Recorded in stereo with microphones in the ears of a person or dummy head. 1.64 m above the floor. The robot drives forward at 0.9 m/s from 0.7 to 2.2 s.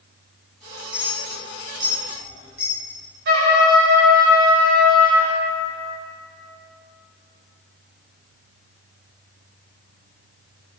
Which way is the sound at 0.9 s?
20° right (ahead or behind).